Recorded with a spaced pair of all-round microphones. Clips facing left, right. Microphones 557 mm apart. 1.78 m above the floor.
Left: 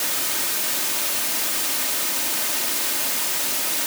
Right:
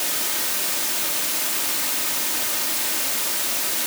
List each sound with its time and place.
Only background noise.